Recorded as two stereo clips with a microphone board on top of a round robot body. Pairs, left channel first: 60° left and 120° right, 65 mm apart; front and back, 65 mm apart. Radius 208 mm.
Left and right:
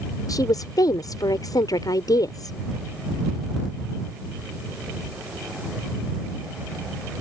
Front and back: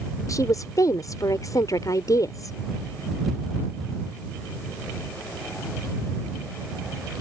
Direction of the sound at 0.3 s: 35° left.